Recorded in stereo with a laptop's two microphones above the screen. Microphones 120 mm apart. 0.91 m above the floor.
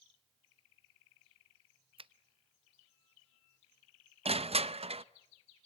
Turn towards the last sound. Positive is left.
turn(degrees=-55)  # may be behind; listen again after turning